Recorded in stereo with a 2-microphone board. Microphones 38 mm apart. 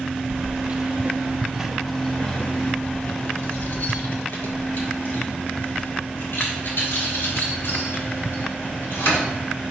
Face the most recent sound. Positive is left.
turn(degrees=85)